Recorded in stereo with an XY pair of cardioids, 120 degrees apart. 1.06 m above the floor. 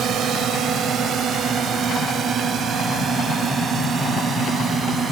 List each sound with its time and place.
0.0 s a drone: 60° right; by 5.1 s 40° right